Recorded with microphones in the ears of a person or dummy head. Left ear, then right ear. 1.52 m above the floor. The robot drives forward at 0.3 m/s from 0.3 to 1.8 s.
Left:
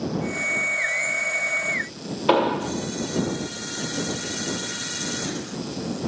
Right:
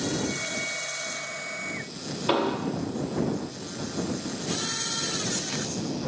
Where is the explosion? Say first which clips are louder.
Left 6 dB; 15° left (ahead or behind), 0.6 m.